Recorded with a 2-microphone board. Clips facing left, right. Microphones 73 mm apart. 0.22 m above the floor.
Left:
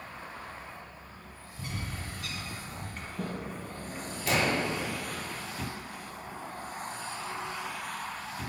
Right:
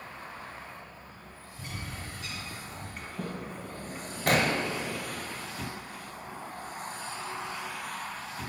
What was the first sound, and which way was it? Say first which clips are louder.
A bird: left 2 dB; 55° left (ahead or behind).